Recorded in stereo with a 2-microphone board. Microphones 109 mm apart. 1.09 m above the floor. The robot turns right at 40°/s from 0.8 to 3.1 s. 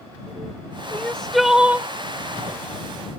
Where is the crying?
160° left; by 1.9 s 160° right.